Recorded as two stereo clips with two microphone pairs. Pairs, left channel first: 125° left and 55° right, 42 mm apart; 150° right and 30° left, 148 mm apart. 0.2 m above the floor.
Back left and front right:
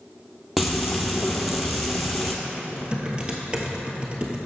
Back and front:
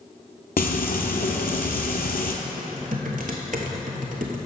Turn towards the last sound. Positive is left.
turn(degrees=10)